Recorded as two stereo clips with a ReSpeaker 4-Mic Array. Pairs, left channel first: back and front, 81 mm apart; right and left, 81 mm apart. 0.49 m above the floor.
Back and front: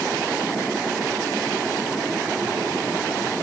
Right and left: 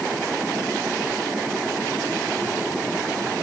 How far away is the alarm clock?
No alarm clock in this recording.